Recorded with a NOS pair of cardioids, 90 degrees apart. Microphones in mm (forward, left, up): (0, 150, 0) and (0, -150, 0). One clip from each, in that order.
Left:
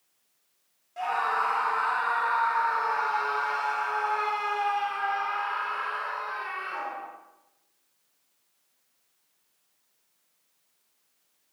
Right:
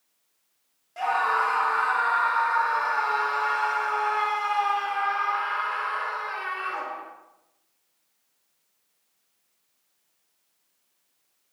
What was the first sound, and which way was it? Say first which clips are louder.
A scream: right 3 dB; 30° right.